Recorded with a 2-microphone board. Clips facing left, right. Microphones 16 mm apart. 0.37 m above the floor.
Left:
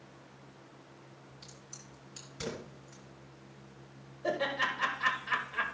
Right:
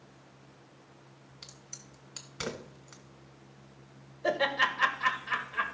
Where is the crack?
50° right (ahead or behind), 2.0 m.